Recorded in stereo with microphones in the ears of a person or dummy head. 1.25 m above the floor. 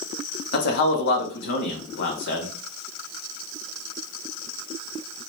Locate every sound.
0.5 s a man speaking: 50° left (ahead or behind), 1.1 m